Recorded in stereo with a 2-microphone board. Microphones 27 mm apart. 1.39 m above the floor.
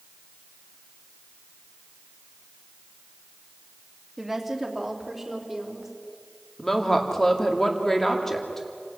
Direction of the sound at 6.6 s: 10° left (ahead or behind).